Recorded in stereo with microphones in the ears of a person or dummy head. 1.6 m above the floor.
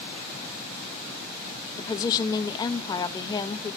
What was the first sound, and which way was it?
A woman speaking, 25° left (ahead or behind).